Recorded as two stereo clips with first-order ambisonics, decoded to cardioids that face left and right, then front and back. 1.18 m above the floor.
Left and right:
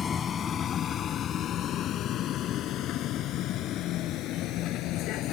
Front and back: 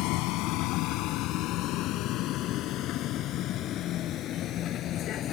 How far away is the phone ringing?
No phone ringing in this recording.